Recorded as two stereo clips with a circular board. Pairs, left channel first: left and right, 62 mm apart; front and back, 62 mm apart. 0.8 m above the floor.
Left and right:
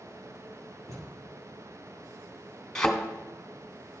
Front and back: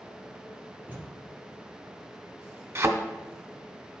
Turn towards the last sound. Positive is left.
turn(degrees=170)